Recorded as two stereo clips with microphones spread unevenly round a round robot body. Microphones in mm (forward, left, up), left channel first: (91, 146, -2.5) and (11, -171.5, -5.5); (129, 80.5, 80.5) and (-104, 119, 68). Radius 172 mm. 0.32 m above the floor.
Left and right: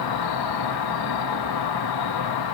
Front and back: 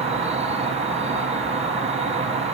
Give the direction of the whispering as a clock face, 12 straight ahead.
I don't hear whispering.